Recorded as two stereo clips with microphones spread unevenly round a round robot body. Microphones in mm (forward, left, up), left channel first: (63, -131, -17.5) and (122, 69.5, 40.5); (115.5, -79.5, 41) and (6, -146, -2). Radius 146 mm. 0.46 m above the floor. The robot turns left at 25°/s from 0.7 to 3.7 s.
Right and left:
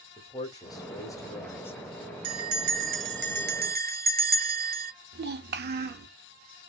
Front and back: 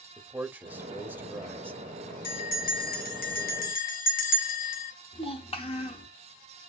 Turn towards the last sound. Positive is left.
turn(degrees=75)